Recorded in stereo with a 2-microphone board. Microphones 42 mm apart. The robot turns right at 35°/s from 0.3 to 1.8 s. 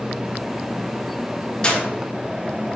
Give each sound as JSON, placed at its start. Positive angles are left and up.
{"t": 1.6, "sound": "a clap", "side_deg": 25, "distance_m": 3.0}